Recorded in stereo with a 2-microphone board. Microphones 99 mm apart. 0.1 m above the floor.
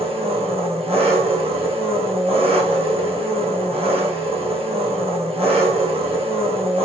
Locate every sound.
0.0 s an engine running: 80° right, 2.5 m